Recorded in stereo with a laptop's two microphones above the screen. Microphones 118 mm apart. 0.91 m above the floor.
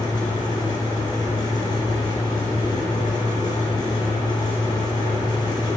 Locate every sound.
0.0 s a fan: 35° left (ahead or behind), 2.5 m